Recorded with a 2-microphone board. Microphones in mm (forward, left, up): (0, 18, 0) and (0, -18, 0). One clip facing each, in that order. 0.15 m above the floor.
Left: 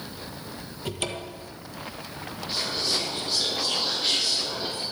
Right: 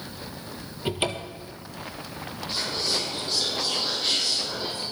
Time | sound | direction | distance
0.8 | a cupboard door | 25° right (ahead or behind) | 1.2 m
2.5 | whispering | centre (ahead or behind) | 5 m